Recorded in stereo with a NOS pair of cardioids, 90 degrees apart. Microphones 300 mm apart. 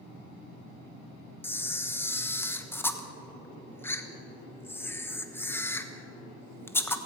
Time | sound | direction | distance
1.4 | a camera shutter | 10° left | 1.2 m